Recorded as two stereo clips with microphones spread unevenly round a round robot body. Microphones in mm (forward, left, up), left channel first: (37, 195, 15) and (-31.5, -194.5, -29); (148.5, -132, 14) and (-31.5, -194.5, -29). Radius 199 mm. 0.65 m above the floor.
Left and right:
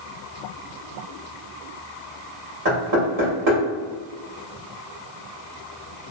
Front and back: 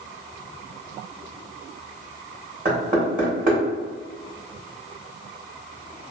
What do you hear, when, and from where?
2.6 s knocking: 130° right, 1.6 m